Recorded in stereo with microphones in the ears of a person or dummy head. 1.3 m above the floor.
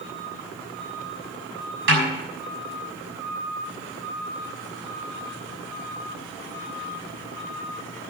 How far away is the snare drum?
About 6 m.